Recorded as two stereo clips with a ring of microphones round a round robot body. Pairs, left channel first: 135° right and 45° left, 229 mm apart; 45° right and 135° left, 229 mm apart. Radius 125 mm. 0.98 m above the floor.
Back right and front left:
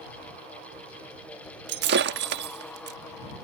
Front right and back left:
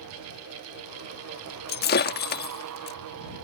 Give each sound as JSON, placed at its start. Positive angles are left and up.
{"t": 1.7, "sound": "breaking glass", "azimuth_deg": 0}